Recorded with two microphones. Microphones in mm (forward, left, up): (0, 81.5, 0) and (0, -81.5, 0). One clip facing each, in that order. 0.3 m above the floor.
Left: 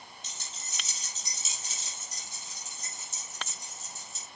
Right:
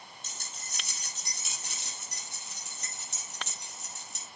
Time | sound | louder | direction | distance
0.2 | keys jangling | even | 55° right (ahead or behind) | 5 m